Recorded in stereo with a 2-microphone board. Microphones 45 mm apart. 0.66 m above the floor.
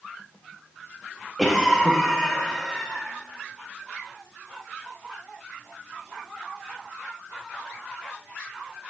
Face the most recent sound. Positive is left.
turn(degrees=5)  # may be behind; listen again after turning